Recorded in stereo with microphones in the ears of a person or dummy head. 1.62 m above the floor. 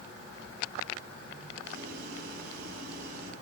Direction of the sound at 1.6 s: 60° right (ahead or behind).